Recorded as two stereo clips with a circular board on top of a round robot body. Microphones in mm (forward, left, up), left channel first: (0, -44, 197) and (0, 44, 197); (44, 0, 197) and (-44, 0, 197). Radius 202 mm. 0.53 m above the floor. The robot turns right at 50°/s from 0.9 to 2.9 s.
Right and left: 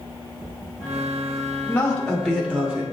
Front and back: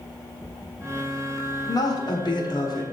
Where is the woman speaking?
25° right, 1.5 m; by 2.8 s 30° left, 1.5 m.